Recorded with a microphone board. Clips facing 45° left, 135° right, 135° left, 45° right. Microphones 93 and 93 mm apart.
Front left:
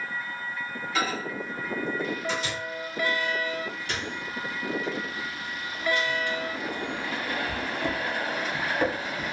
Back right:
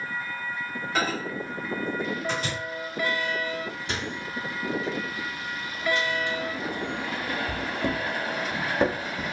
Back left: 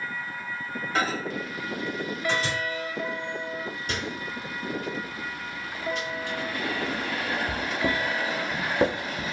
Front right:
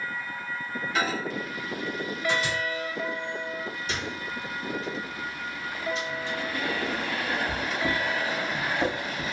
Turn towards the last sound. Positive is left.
turn(degrees=160)